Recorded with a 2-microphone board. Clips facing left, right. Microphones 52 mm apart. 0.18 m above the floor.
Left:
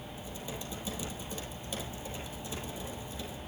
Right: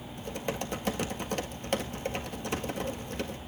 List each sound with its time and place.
0.2 s typing on a keyboard: 75° right (ahead or behind), 1.6 m